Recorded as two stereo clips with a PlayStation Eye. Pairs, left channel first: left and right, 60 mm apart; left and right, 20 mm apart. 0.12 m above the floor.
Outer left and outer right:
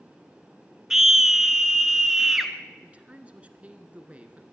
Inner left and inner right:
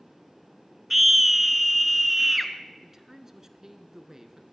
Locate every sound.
0.9 s a scream: 10° right (ahead or behind), 1.8 m
2.8 s a man speaking: 25° right (ahead or behind), 1.5 m